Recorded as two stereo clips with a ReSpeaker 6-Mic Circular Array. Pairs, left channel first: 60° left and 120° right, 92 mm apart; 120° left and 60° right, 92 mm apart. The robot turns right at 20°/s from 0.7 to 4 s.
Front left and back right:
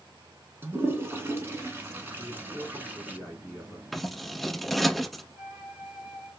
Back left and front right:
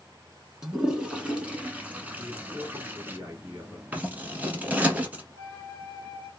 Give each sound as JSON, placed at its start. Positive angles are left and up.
{"t": 0.6, "sound": "a toilet flushing", "azimuth_deg": -130, "distance_m": 0.7}
{"t": 2.2, "sound": "a man speaking", "azimuth_deg": -75, "distance_m": 1.7}
{"t": 3.9, "sound": "scissors", "azimuth_deg": -30, "distance_m": 0.8}
{"t": 5.3, "sound": "a flute", "azimuth_deg": -175, "distance_m": 0.9}